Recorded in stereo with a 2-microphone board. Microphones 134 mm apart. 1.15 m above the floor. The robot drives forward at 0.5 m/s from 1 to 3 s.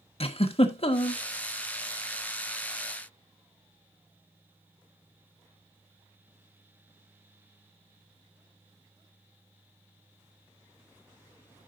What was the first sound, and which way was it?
A giggle, 50° left (ahead or behind).